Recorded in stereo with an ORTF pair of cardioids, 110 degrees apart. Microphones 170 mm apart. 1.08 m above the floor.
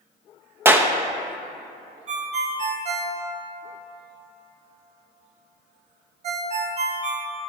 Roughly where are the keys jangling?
I don't hear keys jangling.